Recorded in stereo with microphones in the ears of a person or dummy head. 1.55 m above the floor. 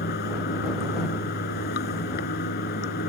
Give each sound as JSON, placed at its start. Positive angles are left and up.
{"t": 0.0, "sound": "running water", "side_deg": 45}